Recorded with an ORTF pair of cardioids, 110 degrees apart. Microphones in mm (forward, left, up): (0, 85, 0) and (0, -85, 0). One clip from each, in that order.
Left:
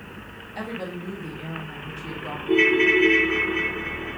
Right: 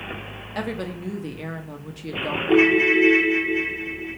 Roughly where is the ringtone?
Ahead.